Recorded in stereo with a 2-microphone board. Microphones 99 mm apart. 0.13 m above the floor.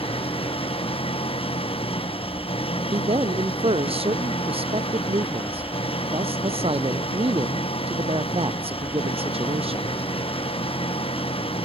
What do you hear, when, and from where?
0.0 s an engine running: 70° left (ahead or behind)
2.9 s a man speaking: 75° right (ahead or behind)